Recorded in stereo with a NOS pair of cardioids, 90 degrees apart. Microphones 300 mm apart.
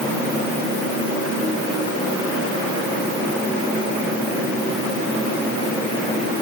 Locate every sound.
Only background noise.